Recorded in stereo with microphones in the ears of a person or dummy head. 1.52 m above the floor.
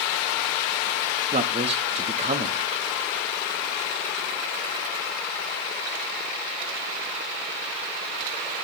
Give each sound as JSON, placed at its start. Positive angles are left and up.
{"t": 1.3, "sound": "a man speaking", "side_deg": -35, "distance_m": 1.1}